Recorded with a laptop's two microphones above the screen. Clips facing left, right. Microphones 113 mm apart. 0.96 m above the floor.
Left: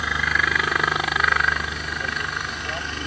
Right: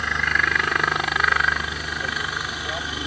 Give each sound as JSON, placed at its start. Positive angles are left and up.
{"t": 0.0, "sound": "a helicopter", "side_deg": 5}